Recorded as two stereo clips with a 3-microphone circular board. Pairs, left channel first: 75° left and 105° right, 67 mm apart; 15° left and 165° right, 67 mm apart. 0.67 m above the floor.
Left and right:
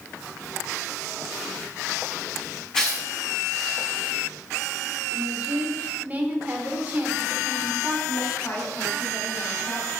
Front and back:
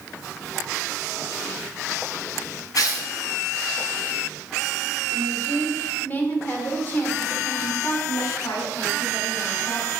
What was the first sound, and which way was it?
Tearing paper, 5° right.